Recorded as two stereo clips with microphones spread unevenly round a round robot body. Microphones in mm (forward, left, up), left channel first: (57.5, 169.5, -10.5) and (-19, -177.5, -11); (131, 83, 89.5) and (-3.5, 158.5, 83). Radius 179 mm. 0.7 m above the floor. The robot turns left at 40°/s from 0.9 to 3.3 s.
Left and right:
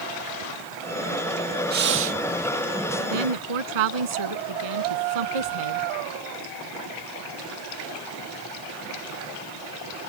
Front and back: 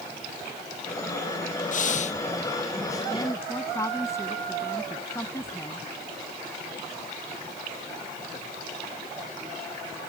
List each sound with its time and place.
1.7 s breathing: 45° right; by 2.2 s 65° right
3.1 s a woman speaking: 100° right; by 5.8 s 110° right